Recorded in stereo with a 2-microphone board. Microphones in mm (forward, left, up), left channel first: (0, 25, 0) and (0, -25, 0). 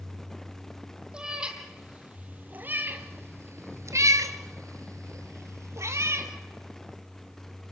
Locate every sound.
1.1 s a cat meowing: 15° right (ahead or behind), 2 m; by 6.3 s 50° right (ahead or behind), 1.7 m